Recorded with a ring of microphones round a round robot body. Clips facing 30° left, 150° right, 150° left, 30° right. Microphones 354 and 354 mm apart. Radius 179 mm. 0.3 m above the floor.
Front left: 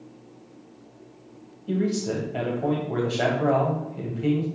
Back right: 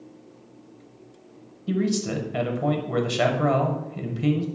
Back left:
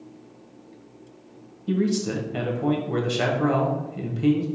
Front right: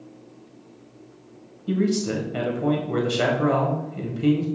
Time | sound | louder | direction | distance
1.7 | a man speaking | back right 1 dB, front right 1 dB | 125° right | 1.8 m